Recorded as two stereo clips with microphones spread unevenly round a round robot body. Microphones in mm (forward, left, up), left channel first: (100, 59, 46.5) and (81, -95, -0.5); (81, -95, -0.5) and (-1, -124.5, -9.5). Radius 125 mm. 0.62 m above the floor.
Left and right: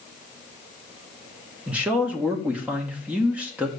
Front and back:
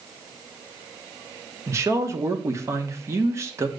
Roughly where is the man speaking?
Behind right.